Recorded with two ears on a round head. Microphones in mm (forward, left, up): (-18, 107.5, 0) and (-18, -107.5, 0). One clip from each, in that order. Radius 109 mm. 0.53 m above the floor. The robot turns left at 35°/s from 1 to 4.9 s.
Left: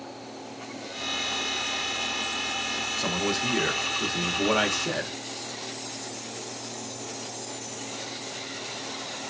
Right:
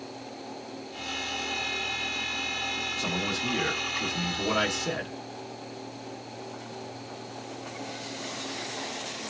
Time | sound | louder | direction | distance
3.0 | a man speaking | left 2 dB | 20° left (ahead or behind) | 0.6 m